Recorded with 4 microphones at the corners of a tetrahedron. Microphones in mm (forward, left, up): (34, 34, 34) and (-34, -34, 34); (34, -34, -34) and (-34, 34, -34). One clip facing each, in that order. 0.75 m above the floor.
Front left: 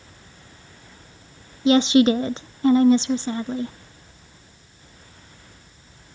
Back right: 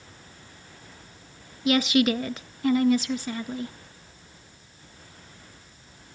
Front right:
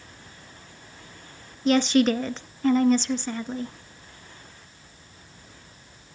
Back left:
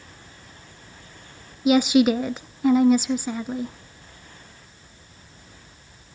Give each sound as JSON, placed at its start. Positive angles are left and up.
{"t": 1.6, "sound": "a woman speaking", "azimuth_deg": 65, "distance_m": 0.5}